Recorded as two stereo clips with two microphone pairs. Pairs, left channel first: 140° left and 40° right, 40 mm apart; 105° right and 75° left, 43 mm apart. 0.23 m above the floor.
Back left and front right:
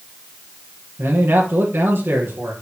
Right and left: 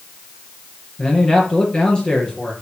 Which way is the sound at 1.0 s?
40° right.